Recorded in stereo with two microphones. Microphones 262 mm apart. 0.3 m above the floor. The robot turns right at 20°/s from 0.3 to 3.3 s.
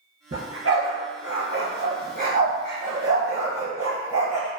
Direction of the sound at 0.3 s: 70° right (ahead or behind).